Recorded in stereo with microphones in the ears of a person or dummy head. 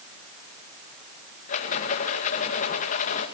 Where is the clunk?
I don't hear a clunk.